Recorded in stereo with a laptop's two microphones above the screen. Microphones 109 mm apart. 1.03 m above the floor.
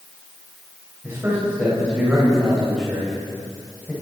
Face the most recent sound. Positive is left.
turn(degrees=10)  # may be behind; listen again after turning